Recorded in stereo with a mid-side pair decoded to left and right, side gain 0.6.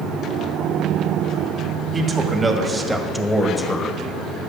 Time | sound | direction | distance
1.9 | a man speaking | 30° right | 2.5 m